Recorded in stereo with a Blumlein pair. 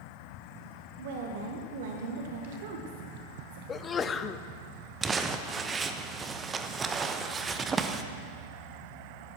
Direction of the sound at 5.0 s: 20° right.